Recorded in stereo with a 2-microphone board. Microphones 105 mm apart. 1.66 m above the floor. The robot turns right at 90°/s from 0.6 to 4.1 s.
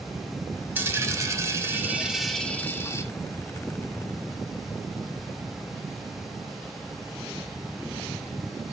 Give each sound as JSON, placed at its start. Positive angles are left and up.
{"t": 0.8, "sound": "a dropped coin", "side_deg": -20, "distance_m": 1.2}